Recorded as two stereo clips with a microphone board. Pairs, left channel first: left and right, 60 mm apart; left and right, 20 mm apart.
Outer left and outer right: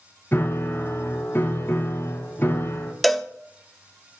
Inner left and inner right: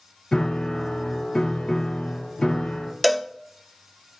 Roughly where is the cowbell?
Centre.